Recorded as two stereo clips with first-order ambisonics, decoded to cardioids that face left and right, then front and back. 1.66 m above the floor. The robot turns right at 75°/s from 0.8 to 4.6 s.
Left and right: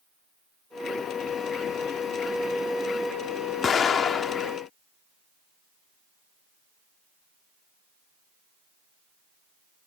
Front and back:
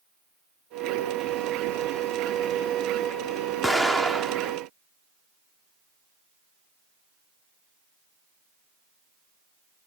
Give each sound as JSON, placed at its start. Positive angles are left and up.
{"t": 3.6, "sound": "an explosion", "azimuth_deg": 80}